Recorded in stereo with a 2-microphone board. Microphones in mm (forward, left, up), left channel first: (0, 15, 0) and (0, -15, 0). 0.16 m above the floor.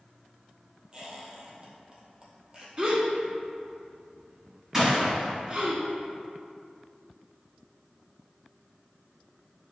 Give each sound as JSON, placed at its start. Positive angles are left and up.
{"t": 0.9, "sound": "a squeak", "side_deg": -25, "distance_m": 1.8}
{"t": 2.8, "sound": "a gasp", "side_deg": -40, "distance_m": 1.9}
{"t": 4.7, "sound": "a gunshot", "side_deg": -15, "distance_m": 2.5}